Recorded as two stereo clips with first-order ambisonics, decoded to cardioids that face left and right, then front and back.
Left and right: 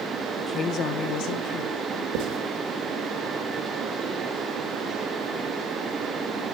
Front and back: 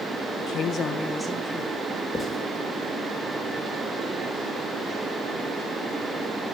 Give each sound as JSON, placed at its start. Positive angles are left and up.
{"t": 0.4, "sound": "a woman speaking", "azimuth_deg": 20, "distance_m": 1.0}
{"t": 2.1, "sound": "writing", "azimuth_deg": -85, "distance_m": 1.8}